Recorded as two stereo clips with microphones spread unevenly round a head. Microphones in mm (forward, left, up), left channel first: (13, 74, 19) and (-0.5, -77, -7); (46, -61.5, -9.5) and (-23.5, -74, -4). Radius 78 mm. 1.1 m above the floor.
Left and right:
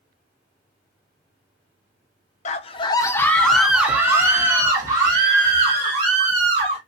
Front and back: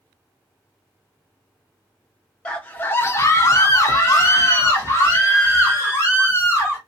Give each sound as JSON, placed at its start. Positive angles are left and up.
{"t": 2.5, "sound": "a scream", "azimuth_deg": 70, "distance_m": 0.7}